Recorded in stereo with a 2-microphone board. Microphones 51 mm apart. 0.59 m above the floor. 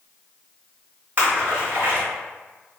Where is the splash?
40° right (ahead or behind), 1.6 m.